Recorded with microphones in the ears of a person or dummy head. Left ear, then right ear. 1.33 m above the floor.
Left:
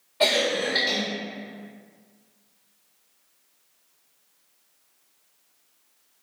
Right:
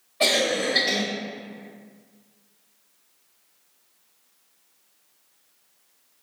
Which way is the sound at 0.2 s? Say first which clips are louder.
Even; 25° left (ahead or behind).